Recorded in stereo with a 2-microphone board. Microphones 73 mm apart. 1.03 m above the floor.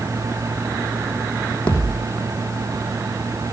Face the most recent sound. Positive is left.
turn(degrees=20)  # may be behind; listen again after turning